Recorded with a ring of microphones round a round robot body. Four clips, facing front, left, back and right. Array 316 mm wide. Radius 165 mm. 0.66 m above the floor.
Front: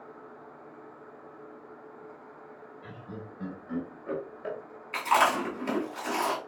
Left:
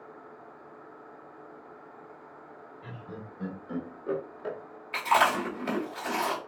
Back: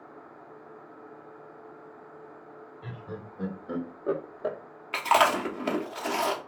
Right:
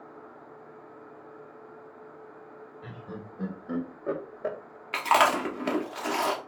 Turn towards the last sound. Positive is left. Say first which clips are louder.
# right 2 dB, back 2 dB
turn(degrees=-125)